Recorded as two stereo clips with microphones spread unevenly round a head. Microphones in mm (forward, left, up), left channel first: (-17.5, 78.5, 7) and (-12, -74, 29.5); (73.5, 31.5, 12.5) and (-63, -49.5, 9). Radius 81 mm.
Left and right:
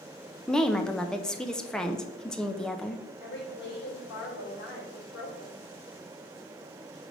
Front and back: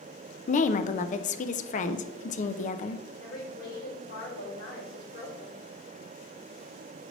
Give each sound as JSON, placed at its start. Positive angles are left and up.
{"t": 0.5, "sound": "a woman speaking", "azimuth_deg": 15, "distance_m": 0.5}
{"t": 3.2, "sound": "a woman speaking", "azimuth_deg": 65, "distance_m": 3.5}